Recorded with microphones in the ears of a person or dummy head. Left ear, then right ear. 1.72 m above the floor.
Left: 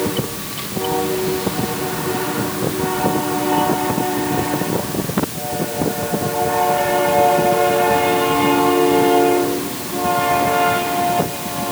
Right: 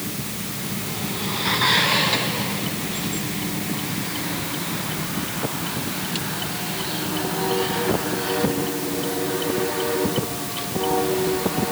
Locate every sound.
Only background noise.